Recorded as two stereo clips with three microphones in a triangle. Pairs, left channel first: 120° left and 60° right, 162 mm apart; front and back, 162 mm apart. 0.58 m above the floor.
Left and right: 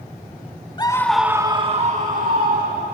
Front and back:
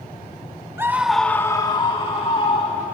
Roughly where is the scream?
Behind left.